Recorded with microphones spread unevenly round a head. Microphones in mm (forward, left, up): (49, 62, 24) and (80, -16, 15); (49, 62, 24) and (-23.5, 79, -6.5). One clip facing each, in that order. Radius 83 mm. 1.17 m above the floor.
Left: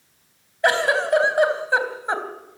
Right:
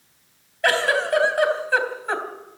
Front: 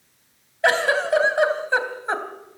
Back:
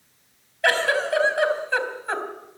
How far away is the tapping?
No tapping in this recording.